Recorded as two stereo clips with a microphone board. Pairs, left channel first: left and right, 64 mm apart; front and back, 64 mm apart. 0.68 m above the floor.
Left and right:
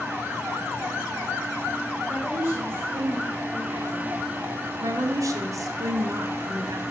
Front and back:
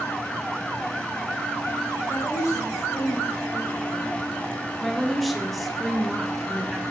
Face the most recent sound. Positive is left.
turn(degrees=-90)